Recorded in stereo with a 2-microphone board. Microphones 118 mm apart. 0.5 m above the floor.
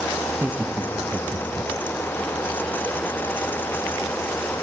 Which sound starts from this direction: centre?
Laughter, at 0.3 s.